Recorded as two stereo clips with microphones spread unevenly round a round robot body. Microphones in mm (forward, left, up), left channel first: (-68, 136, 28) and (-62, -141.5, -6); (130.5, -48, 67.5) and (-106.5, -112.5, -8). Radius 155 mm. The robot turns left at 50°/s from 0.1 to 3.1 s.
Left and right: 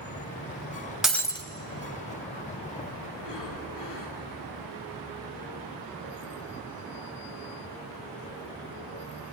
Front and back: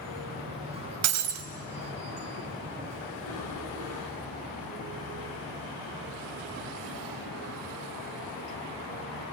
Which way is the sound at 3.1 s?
60° left.